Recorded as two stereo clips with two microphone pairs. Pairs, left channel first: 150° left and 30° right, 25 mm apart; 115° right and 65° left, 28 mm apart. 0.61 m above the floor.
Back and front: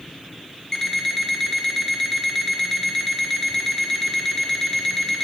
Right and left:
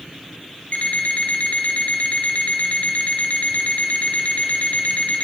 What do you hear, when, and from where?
0.7 s an alarm clock: 140° right, 1.0 m